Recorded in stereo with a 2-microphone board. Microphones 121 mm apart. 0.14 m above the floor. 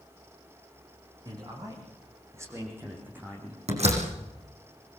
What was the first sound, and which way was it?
A man speaking, 35° right (ahead or behind).